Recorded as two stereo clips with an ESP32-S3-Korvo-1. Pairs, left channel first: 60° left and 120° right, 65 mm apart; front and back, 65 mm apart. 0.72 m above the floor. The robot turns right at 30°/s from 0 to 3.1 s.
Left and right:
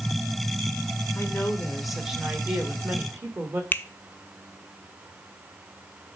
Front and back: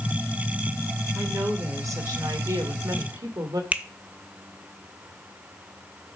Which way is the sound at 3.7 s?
120° left.